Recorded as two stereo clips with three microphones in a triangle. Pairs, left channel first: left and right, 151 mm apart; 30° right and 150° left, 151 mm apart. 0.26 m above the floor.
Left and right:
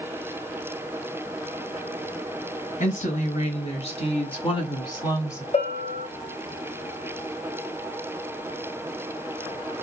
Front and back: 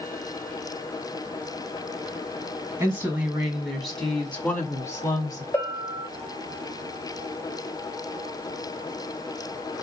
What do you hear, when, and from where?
2.8 s a woman speaking: 75° left, 1.9 m; by 5.4 s 25° left, 1.7 m
5.5 s a bell: 45° left, 1.7 m